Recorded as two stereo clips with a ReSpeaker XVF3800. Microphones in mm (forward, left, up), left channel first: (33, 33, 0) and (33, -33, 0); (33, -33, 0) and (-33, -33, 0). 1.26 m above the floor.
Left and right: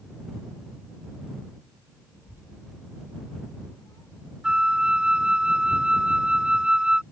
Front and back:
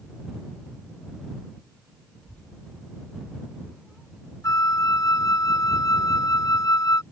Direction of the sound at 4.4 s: 15° right.